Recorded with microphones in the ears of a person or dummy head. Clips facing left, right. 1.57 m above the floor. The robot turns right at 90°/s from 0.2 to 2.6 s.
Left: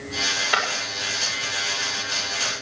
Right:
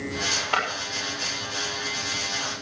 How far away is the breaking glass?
About 6 m.